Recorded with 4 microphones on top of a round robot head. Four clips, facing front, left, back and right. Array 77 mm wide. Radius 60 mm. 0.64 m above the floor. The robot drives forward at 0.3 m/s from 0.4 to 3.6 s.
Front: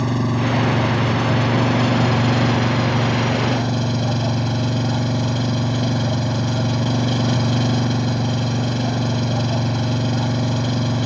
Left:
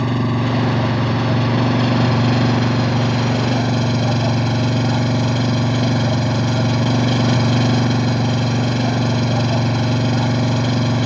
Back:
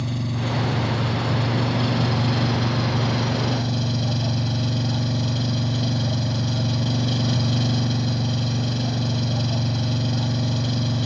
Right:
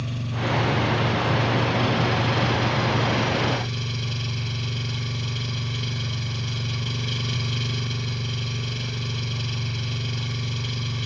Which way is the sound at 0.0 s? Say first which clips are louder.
Left 10 dB, front 7 dB; 60° left.